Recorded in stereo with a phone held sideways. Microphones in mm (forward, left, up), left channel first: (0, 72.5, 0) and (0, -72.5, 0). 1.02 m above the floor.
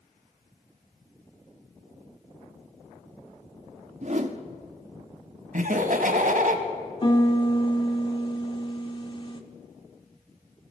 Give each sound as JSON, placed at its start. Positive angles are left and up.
{"t": 4.0, "sound": "a whoosh", "side_deg": -55, "distance_m": 0.7}
{"t": 5.5, "sound": "laughter", "side_deg": -65, "distance_m": 1.2}
{"t": 7.0, "sound": "a piano", "side_deg": 35, "distance_m": 0.7}